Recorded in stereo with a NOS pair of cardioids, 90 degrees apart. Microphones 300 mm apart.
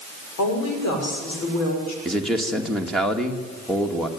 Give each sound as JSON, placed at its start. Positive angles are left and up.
{"t": 0.4, "sound": "a woman speaking", "azimuth_deg": 70, "distance_m": 6.5}
{"t": 2.0, "sound": "a man speaking", "azimuth_deg": 0, "distance_m": 2.5}